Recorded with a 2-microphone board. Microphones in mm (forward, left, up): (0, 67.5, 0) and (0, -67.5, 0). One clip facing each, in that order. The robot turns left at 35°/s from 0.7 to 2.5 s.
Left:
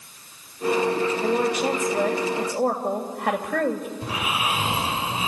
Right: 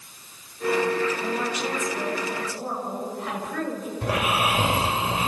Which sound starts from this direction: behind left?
A woman speaking, at 1.2 s.